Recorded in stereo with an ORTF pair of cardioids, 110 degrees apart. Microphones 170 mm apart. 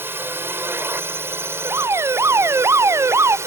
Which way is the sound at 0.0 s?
15° right.